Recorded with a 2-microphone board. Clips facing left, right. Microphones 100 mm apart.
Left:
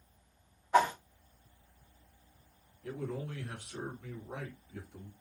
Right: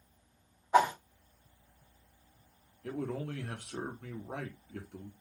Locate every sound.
0.7 s a whoosh: 15° right (ahead or behind), 0.7 m
2.8 s a man speaking: 65° right (ahead or behind), 1.0 m